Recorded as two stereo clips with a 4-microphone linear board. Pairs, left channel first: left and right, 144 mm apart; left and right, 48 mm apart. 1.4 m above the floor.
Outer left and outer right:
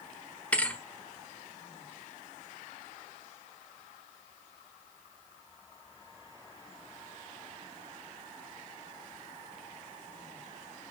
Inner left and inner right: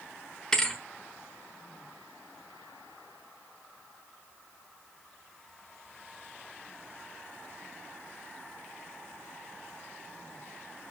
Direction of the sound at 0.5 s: 10° left (ahead or behind).